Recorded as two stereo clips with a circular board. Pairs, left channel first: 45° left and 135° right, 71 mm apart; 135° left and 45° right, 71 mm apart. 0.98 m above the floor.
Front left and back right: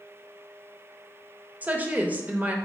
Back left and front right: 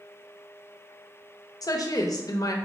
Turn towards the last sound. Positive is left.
turn(degrees=160)